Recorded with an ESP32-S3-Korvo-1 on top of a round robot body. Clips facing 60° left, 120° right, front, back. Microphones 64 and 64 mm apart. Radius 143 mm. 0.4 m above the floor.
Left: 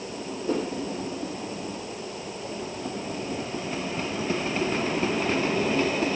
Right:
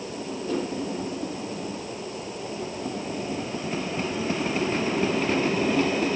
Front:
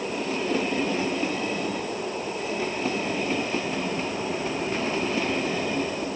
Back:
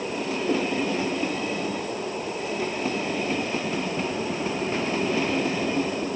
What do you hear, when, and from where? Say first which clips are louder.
0.5 s a whoosh: left 1 dB, back 2 dB; 120° left, 9 m